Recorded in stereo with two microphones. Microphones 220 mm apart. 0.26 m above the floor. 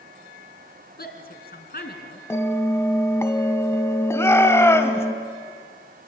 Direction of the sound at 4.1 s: 10° left (ahead or behind).